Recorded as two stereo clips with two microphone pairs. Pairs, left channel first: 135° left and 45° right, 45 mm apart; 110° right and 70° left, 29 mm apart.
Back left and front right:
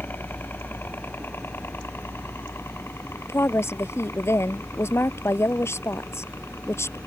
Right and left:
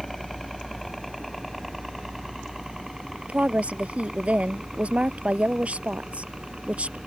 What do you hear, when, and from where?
0.0 s a helicopter: 165° left; by 7.1 s 135° left
3.3 s a woman speaking: 110° left